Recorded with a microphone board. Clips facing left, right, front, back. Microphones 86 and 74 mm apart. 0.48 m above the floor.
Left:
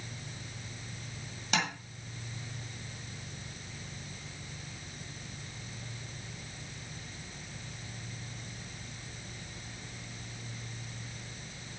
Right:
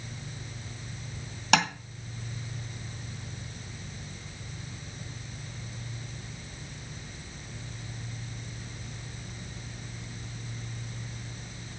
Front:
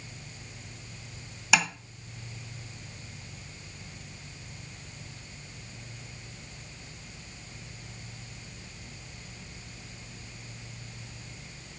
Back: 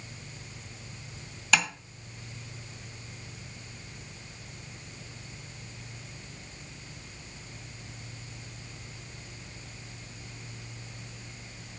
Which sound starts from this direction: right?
Tapping, at 1.5 s.